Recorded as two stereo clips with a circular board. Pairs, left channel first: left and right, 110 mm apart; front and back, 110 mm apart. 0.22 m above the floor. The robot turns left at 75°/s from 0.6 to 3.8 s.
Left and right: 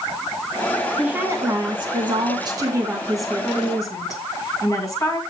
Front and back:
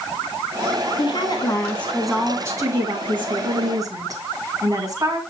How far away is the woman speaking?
About 2 m.